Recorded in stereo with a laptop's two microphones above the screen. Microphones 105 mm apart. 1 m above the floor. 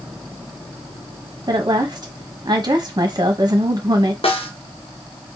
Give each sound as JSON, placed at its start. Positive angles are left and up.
{"t": 1.5, "sound": "a woman speaking", "side_deg": -45, "distance_m": 1.1}
{"t": 4.2, "sound": "a snare drum", "side_deg": 65, "distance_m": 0.8}